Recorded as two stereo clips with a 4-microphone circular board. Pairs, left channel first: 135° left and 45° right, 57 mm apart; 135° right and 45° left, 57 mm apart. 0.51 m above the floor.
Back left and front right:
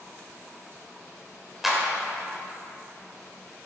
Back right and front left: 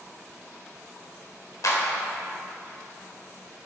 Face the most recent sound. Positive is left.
turn(degrees=-130)